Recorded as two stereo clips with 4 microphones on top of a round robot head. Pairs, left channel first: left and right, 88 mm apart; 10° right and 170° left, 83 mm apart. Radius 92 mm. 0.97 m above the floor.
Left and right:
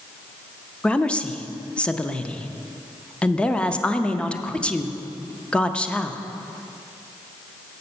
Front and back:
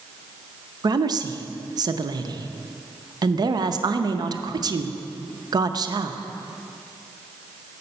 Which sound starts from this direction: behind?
A woman speaking, at 0.8 s.